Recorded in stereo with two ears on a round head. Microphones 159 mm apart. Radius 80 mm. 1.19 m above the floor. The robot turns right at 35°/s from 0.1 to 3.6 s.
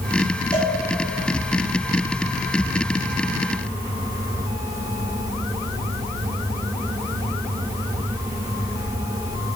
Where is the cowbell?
25° left (ahead or behind), 2.5 m; by 0.8 s 35° left (ahead or behind), 2.5 m.